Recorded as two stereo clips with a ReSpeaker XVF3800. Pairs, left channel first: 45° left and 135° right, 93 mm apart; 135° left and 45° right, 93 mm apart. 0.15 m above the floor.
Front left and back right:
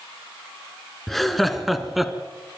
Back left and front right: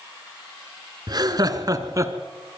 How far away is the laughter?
About 1.8 m.